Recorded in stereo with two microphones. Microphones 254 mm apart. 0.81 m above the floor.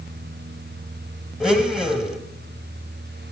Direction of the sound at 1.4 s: Centre (ahead or behind).